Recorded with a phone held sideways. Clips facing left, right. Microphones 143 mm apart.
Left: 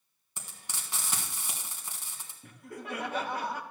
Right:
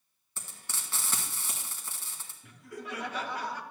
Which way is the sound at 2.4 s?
50° left (ahead or behind).